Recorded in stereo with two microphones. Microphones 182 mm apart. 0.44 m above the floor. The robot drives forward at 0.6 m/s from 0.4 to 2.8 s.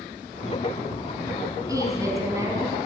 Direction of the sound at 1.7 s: 20° right (ahead or behind).